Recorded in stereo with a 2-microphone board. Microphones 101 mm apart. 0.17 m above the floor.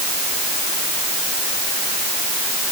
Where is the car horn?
No car horn in this recording.